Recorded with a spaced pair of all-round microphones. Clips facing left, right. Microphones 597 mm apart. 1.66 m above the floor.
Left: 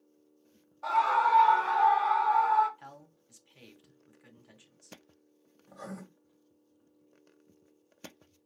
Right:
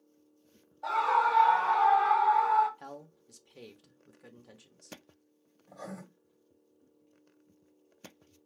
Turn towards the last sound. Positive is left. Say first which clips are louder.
# even
turn(degrees=35)  # may be behind; listen again after turning